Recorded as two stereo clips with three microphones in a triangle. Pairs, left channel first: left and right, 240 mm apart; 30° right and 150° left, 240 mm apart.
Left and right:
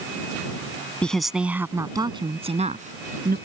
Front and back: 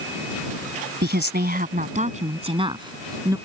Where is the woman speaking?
175° left; by 3.4 s 135° right.